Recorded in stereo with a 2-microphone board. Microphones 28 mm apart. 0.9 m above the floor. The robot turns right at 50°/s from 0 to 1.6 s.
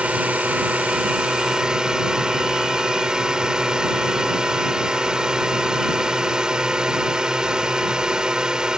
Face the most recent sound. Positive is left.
turn(degrees=-35)